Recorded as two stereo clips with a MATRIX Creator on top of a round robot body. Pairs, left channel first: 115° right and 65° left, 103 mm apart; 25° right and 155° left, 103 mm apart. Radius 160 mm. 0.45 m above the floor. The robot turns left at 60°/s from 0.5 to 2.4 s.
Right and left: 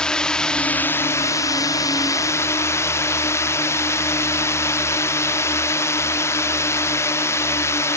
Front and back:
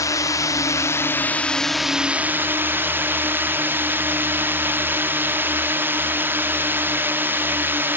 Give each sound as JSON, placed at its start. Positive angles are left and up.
{"t": 0.0, "sound": "a drone", "azimuth_deg": -35}